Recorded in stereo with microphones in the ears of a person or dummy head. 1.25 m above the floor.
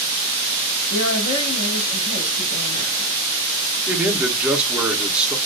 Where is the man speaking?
5° right (ahead or behind), 0.6 m.